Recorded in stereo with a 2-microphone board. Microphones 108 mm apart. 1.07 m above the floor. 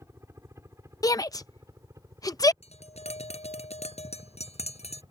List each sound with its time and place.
0.0 s a helicopter: 25° right (ahead or behind); by 5.1 s 35° right (ahead or behind)
1.0 s a shout: 35° left (ahead or behind)
2.6 s tapping: 80° left